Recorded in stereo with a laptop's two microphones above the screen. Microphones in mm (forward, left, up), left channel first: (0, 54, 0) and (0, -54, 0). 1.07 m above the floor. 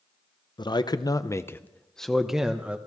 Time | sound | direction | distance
0.6 | a man speaking | 45° left (ahead or behind) | 0.7 m